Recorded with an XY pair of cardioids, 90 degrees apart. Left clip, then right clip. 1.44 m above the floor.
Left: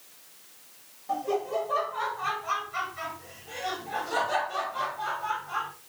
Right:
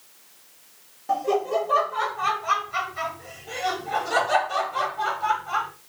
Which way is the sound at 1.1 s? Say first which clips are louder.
Right 6 dB; 60° right.